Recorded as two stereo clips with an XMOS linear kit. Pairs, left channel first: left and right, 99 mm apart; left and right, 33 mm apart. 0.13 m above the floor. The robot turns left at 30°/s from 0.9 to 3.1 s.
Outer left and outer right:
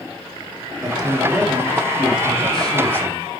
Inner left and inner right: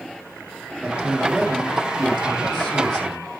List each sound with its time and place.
0.8 s a man speaking: 135° right, 4.5 m; by 3.3 s 160° left, 4.5 m